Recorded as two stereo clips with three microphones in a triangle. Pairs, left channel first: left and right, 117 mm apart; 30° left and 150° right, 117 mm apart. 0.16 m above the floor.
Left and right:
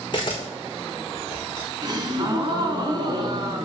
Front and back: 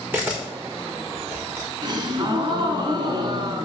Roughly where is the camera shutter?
Behind left.